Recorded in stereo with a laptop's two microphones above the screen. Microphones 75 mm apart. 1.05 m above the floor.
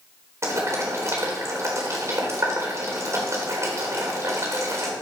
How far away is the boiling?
About 4 m.